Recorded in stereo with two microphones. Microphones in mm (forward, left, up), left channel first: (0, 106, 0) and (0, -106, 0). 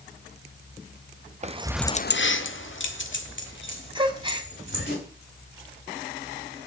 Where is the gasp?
25° right (ahead or behind), 1.2 m.